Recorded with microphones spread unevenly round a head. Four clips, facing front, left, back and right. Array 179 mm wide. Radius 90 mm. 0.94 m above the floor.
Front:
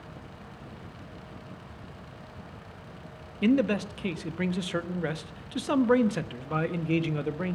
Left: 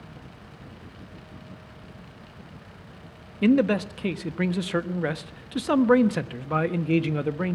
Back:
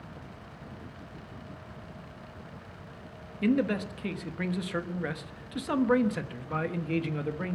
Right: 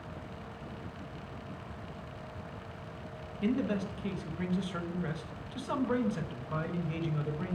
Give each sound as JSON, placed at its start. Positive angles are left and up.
{"t": 3.4, "sound": "a man speaking", "azimuth_deg": 75, "distance_m": 1.2}